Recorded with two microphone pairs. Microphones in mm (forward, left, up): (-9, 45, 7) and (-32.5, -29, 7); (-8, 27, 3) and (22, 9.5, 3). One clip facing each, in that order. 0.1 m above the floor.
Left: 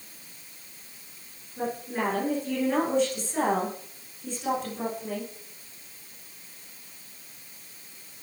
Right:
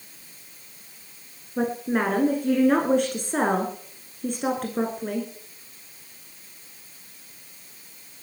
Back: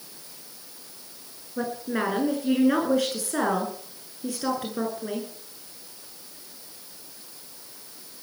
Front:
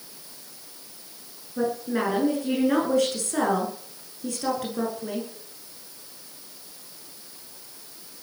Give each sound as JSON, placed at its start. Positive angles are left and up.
{"t": 1.6, "sound": "a woman speaking", "azimuth_deg": -130, "distance_m": 8.0}